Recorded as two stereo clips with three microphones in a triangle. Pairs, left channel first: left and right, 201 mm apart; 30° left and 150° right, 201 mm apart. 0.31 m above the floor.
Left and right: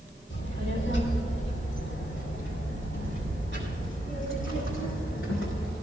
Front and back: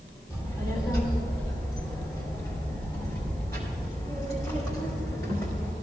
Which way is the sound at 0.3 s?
105° left.